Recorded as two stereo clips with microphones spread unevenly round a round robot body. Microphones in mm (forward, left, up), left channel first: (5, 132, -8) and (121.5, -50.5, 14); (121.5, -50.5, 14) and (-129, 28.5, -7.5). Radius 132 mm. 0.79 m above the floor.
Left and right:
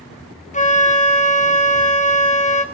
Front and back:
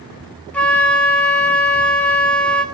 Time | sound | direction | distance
0.5 | a flute | 70° left | 1.7 m